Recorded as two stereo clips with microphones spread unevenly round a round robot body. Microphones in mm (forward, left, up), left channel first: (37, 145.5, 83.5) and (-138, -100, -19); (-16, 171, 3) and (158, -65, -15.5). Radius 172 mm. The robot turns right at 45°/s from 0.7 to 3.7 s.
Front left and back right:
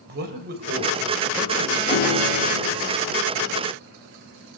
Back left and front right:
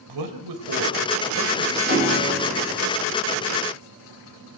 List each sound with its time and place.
0.1 s a man speaking: 65° right, 3 m; by 1.8 s 20° right, 3 m
1.9 s a piano: 5° right, 7 m; by 2.8 s 40° left, 7 m